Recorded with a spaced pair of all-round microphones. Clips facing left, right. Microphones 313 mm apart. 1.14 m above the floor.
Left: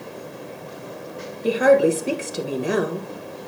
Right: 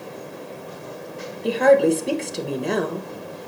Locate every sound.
1.4 s a woman speaking: 5° left (ahead or behind), 1.1 m